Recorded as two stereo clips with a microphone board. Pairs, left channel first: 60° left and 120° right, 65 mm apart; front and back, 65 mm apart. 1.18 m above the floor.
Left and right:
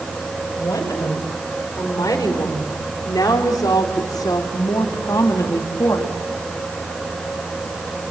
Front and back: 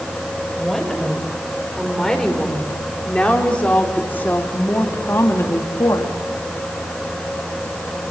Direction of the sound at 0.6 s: 85° left.